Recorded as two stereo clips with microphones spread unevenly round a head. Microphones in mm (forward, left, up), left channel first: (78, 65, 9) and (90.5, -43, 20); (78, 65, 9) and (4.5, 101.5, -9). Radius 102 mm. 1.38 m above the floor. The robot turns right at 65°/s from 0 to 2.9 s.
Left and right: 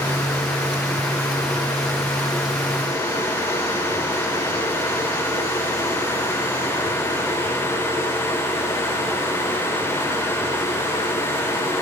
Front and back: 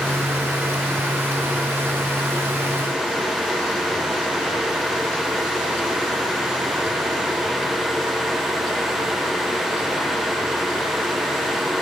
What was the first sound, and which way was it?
Only background noise.